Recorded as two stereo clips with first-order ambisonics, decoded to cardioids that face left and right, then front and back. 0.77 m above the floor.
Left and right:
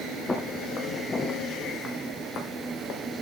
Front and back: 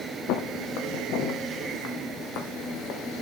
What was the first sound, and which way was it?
Footsteps, 15° left.